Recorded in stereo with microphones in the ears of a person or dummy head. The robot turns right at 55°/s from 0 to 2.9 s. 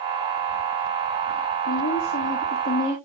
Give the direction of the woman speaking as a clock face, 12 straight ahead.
9 o'clock.